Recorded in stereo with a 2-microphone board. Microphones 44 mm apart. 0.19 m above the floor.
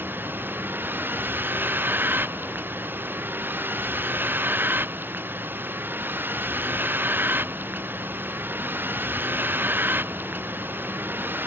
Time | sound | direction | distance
0.0 | a vehicle | 55° right (ahead or behind) | ?